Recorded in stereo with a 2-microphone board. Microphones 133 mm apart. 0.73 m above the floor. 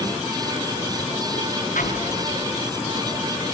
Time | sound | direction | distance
1.8 | an explosion | 85° left | 5 m